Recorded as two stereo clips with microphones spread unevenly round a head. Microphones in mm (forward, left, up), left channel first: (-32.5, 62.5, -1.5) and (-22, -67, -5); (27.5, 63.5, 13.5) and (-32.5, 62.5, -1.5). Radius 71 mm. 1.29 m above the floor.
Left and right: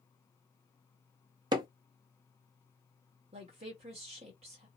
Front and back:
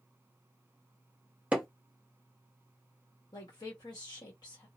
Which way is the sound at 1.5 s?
100° right.